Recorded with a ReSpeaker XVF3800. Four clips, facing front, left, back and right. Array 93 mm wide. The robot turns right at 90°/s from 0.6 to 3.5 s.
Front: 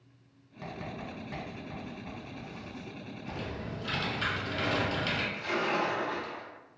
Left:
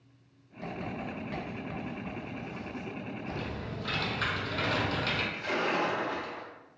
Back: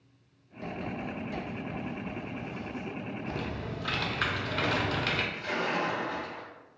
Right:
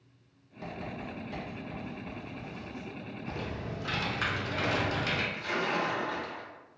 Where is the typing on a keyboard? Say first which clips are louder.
Right 3 dB, even; 170° left, 0.6 m; by 5.2 s 165° right, 0.6 m.